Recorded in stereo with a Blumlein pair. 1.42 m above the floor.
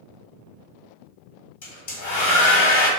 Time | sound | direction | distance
1.6 | a hair dryer | 50° left | 1.4 m